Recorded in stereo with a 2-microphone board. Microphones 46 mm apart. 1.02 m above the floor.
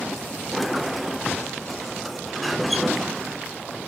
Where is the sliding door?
Centre (ahead or behind), 0.5 m.